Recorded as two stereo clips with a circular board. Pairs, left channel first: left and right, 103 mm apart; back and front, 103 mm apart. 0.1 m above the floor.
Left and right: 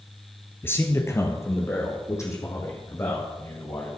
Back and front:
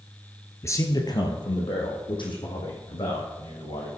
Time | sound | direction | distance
0.6 | a man speaking | 140° left | 1.3 m